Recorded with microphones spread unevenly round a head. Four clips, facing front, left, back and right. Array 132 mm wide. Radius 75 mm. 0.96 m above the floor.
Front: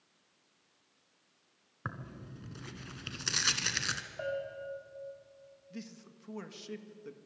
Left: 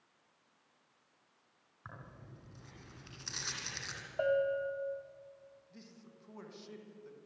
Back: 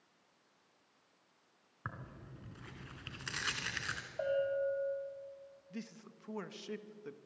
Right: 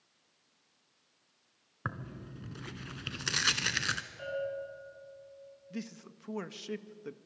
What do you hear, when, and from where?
1.9 s tearing paper: 70° right, 1.7 m
4.2 s a bell: 105° left, 3 m
5.7 s a man speaking: 95° right, 1.5 m